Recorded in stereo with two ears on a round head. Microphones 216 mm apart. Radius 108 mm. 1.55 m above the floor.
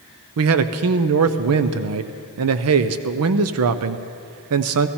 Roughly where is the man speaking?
Right.